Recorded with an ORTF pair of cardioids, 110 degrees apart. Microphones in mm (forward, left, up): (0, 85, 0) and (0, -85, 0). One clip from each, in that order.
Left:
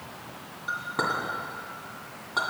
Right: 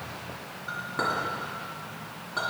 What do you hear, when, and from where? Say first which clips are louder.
0.7 s a clink: left 1 dB; 30° left, 2.5 m